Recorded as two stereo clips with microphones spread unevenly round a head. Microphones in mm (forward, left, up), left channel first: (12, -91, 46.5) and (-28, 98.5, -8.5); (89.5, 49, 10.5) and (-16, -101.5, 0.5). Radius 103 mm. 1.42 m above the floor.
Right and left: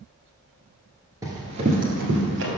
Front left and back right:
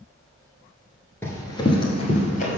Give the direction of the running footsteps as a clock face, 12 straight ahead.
12 o'clock.